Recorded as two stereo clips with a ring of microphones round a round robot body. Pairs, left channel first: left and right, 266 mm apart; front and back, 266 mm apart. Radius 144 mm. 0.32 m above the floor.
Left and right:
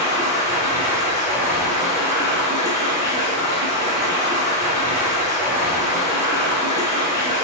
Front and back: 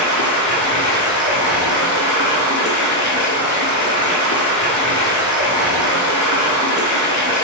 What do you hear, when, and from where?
0.0 s running water: 10° right, 1.0 m